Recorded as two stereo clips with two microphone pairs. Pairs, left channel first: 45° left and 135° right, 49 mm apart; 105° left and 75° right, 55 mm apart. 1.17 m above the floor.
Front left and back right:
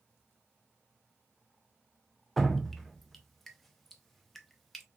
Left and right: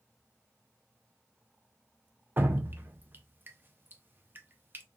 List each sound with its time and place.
2.4 s dripping: 40° right, 0.6 m